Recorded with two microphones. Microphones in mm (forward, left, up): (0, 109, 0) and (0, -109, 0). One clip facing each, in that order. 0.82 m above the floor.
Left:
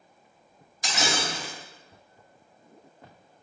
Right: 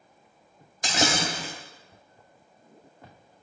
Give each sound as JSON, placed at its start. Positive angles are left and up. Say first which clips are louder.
{"t": 0.8, "sound": "breaking glass", "louder": "right 3 dB", "side_deg": -50, "distance_m": 1.8}